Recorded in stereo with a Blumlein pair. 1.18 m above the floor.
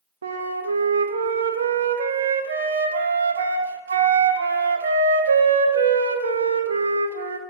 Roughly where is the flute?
Right.